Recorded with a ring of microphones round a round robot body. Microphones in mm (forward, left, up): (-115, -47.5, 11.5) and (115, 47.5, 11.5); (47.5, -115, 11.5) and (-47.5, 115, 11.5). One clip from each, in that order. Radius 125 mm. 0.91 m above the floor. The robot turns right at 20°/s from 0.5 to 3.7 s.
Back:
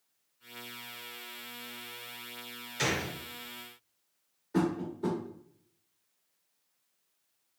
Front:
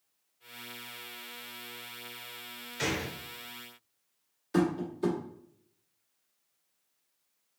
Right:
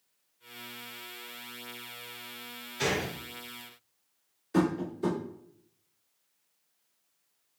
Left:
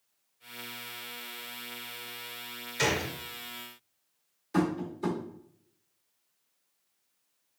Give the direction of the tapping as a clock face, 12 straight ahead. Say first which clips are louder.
Front 2 dB, right 1 dB; 11 o'clock.